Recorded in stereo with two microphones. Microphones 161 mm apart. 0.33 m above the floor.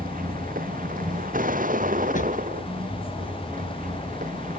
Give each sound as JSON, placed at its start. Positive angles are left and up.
{"t": 0.0, "sound": "a vehicle", "side_deg": -60}
{"t": 2.1, "sound": "a drawer", "side_deg": 55}